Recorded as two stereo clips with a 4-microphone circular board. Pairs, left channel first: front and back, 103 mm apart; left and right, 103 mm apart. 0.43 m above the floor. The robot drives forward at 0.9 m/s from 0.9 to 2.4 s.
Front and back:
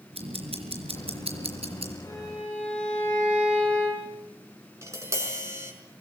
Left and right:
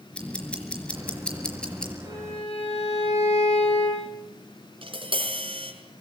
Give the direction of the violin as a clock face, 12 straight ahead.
9 o'clock.